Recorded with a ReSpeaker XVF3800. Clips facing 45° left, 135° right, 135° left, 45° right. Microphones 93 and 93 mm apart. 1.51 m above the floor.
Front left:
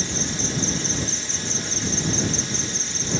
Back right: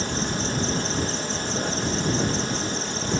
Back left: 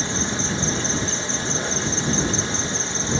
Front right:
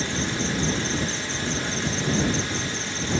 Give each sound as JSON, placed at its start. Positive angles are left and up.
{"t": 0.0, "sound": "an insect", "azimuth_deg": -165}